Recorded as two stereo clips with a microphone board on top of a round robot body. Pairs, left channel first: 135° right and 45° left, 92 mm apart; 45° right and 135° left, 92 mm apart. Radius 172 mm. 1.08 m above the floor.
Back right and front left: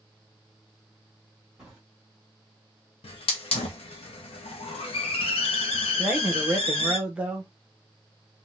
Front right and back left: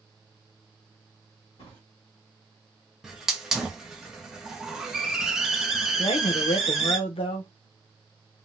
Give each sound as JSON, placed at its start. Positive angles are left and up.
{"t": 1.6, "sound": "a drawer", "azimuth_deg": -45, "distance_m": 1.3}
{"t": 3.0, "sound": "a hiss", "azimuth_deg": -140, "distance_m": 0.5}
{"t": 6.0, "sound": "a man speaking", "azimuth_deg": -35, "distance_m": 0.7}